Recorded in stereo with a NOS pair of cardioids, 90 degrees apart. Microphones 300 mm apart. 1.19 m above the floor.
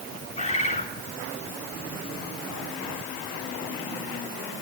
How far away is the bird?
About 6.5 m.